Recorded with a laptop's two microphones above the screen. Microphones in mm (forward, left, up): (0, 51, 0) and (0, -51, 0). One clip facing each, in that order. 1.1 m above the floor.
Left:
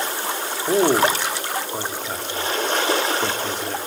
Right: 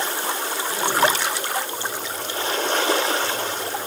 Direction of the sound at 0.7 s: 75° left (ahead or behind).